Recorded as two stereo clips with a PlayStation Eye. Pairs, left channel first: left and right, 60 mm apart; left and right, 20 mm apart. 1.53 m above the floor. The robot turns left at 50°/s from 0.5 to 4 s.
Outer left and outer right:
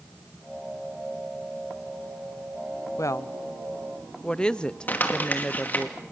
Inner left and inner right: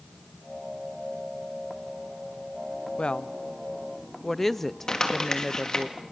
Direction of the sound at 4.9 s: 30° left (ahead or behind).